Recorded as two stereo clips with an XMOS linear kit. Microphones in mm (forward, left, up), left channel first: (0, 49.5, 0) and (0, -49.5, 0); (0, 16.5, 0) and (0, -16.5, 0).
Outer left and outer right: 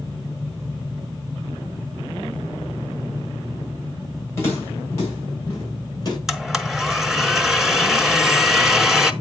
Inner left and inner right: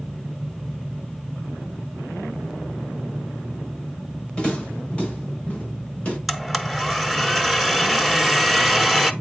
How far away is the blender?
About 0.8 m.